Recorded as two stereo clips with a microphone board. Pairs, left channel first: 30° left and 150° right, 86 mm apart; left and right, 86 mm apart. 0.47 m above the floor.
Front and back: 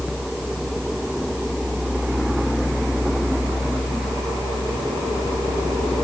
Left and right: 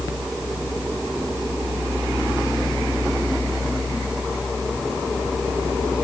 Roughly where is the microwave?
No microwave in this recording.